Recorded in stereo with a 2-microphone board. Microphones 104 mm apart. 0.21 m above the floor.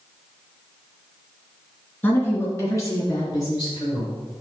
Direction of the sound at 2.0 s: 20° left (ahead or behind).